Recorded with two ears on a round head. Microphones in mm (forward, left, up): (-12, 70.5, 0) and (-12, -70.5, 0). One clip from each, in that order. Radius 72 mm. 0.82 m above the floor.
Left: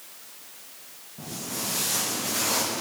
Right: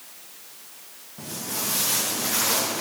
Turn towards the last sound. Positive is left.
turn(degrees=-50)  # may be behind; listen again after turning